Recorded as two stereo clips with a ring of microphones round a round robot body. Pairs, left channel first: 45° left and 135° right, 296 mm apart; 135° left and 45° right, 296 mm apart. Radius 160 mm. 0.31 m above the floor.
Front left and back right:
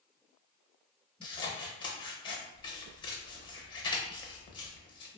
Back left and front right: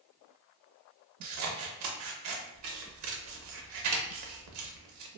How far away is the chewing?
No chewing in this recording.